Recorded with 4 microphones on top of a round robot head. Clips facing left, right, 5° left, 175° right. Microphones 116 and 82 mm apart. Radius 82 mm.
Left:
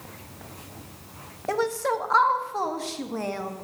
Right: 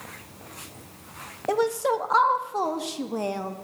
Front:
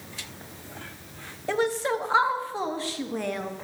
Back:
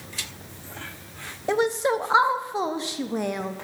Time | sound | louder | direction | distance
1.5 | a woman speaking | right 2 dB, back 3 dB | 135° right | 0.5 m